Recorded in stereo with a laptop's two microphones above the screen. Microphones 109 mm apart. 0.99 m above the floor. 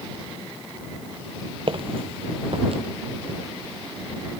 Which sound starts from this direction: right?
Footsteps, at 1.7 s.